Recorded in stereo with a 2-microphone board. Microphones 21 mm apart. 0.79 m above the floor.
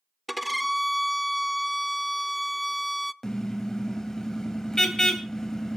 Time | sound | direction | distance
0.3 | a violin | centre (ahead or behind) | 0.5 m
3.2 | a car horn | 30° left (ahead or behind) | 2.5 m